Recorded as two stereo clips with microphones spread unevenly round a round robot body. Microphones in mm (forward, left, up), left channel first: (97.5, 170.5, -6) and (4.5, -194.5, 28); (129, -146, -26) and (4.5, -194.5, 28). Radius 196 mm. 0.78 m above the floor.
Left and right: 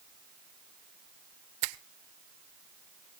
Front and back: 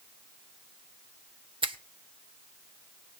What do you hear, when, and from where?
1.6 s a finger snap: 95° right, 1.0 m